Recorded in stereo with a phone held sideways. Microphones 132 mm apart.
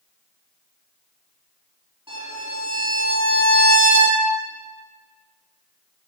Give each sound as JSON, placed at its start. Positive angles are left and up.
{"t": 2.1, "sound": "a violin", "side_deg": -45, "distance_m": 5.5}